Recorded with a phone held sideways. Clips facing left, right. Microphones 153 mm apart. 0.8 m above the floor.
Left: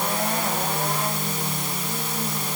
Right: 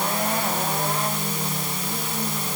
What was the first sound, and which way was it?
Only background noise.